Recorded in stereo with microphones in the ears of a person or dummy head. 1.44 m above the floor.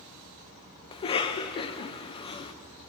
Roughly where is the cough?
Left.